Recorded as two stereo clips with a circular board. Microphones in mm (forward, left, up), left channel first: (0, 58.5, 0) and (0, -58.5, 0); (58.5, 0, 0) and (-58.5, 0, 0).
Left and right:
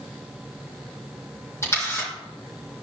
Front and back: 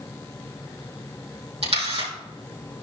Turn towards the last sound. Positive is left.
turn(degrees=155)